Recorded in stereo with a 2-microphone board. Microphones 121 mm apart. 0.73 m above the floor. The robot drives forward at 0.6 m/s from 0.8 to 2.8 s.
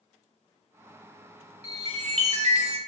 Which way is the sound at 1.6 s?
55° right (ahead or behind).